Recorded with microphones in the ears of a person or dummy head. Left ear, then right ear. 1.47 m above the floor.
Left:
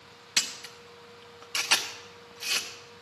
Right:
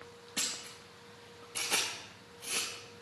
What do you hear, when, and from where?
0.4 s a camera shutter: 20° left (ahead or behind), 0.7 m